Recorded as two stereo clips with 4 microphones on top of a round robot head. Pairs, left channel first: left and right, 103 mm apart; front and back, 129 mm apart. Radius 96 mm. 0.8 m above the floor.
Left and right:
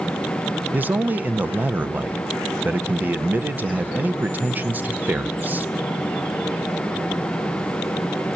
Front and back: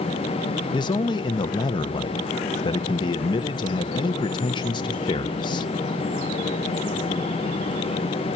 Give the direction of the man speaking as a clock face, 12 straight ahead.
1 o'clock.